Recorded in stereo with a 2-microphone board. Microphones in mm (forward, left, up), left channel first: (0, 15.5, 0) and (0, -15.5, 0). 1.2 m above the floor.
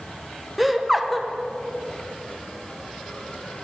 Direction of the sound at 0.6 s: 5° right (ahead or behind).